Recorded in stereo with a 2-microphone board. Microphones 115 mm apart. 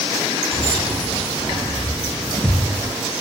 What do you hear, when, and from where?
0.5 s keys jangling: 15° left (ahead or behind), 6 m